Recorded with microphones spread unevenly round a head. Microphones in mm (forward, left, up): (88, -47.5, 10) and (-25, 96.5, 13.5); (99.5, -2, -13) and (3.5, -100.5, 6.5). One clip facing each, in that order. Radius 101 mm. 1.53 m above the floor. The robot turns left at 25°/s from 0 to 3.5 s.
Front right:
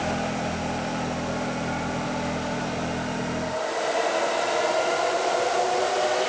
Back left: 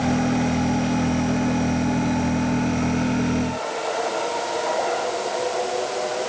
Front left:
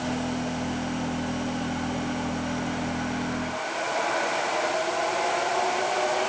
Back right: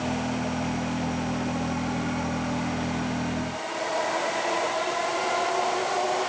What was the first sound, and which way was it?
Only background noise.